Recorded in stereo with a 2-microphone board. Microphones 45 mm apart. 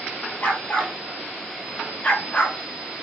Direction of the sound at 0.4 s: 35° left (ahead or behind).